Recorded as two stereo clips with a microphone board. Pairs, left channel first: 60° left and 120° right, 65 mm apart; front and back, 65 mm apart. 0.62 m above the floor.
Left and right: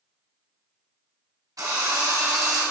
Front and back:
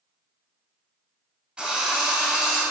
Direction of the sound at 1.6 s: 105° right.